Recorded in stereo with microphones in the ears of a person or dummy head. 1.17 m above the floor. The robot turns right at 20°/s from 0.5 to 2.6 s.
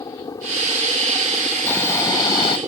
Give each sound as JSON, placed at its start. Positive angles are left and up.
{"t": 0.0, "sound": "a helicopter", "azimuth_deg": 150}
{"t": 1.7, "sound": "snoring", "side_deg": 10}